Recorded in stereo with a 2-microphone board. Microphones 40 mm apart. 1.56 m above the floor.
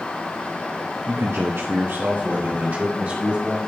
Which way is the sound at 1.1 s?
55° right (ahead or behind).